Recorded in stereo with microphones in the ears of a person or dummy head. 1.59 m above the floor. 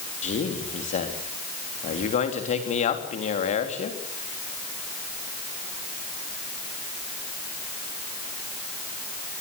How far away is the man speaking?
About 3.5 m.